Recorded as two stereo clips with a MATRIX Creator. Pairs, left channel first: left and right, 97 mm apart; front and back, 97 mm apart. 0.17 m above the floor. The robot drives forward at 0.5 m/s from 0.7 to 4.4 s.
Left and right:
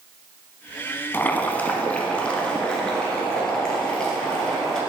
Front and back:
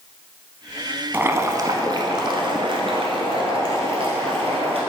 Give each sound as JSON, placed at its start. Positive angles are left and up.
{"t": 1.1, "sound": "boiling", "azimuth_deg": 130, "distance_m": 0.6}